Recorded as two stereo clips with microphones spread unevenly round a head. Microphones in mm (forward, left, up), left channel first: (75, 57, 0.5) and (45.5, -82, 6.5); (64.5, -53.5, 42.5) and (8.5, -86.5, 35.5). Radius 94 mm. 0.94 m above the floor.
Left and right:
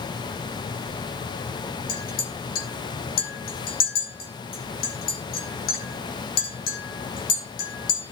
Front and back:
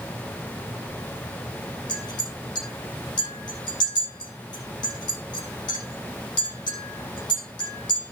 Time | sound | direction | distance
1.9 | a clink | 65° left | 8.5 m